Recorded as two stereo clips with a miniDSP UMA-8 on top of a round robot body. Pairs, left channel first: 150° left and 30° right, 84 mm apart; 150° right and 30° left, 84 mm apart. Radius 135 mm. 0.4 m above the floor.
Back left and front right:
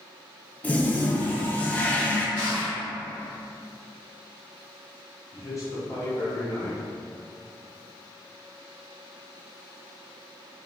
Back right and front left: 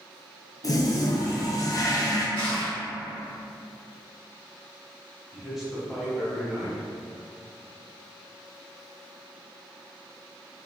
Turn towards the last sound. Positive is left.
turn(degrees=115)